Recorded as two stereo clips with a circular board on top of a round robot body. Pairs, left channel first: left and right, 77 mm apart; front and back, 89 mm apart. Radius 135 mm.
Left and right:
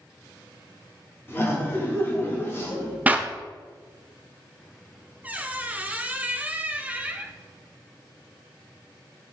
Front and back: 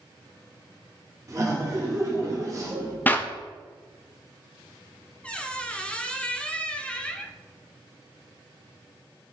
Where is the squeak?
60° right, 0.6 m.